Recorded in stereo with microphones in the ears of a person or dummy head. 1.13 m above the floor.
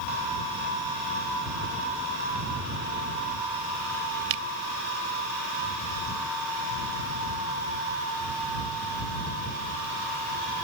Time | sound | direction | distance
4.3 | a finger snap | 75° right (ahead or behind) | ?